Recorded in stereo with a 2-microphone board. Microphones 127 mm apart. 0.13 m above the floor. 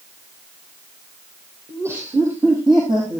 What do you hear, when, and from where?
1.7 s laughter: 15° right (ahead or behind), 4.5 m; by 3.2 s 40° right (ahead or behind), 4.5 m